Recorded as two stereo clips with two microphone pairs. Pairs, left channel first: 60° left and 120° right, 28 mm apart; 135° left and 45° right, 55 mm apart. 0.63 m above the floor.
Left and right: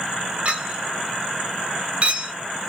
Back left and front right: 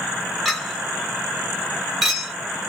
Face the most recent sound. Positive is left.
turn(degrees=-140)